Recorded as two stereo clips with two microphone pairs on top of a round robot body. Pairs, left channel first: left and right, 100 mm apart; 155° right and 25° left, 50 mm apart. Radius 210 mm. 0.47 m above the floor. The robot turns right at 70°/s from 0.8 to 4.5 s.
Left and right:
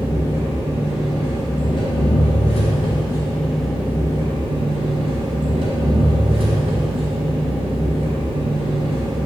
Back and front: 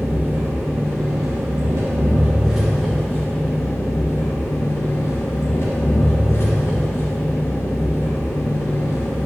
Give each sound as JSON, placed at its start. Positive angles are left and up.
{"t": 0.0, "sound": "an engine running", "azimuth_deg": -20, "distance_m": 1.2}